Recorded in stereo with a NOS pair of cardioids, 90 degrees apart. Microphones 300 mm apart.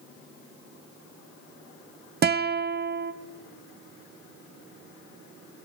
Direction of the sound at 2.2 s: 35° right.